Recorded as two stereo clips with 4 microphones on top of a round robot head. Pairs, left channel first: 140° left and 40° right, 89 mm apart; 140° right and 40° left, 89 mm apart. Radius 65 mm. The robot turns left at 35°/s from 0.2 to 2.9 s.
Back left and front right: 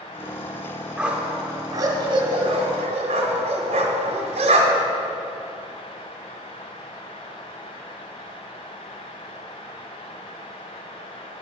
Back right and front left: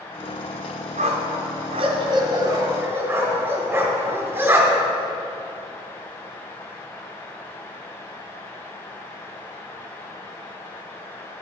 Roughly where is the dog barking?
Ahead left.